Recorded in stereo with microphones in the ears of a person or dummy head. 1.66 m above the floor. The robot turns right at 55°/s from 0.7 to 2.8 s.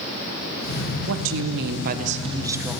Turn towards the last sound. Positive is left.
turn(degrees=0)